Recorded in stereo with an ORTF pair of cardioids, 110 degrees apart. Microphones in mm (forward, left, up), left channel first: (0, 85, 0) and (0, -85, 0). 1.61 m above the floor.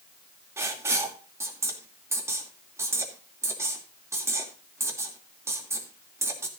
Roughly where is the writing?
Ahead.